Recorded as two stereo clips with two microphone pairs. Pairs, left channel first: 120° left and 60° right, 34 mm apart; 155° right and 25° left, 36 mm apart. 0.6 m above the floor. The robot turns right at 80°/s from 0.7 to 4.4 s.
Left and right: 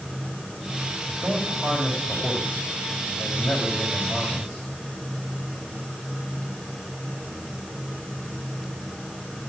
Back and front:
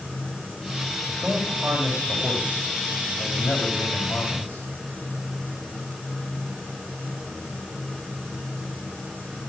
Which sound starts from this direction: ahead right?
A man speaking, at 1.1 s.